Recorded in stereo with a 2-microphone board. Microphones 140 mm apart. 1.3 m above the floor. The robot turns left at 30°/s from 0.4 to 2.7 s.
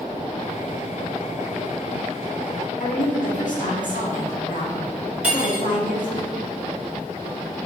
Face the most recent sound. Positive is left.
turn(degrees=-5)  # may be behind; listen again after turning